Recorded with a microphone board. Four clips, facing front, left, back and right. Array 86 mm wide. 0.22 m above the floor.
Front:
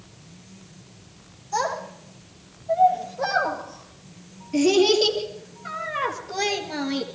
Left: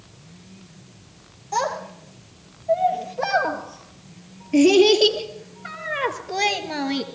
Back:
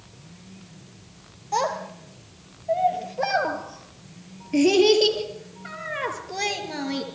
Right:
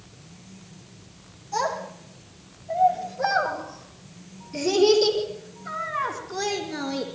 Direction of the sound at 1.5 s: 145° left.